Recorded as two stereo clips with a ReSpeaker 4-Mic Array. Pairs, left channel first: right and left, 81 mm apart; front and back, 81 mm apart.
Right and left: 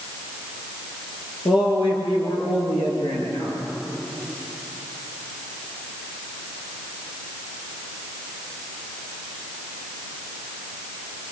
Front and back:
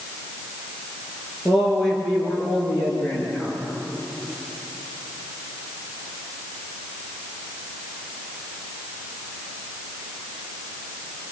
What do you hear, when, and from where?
1.4 s a man speaking: 85° right, 6.5 m; by 3.6 s 75° right, 6.5 m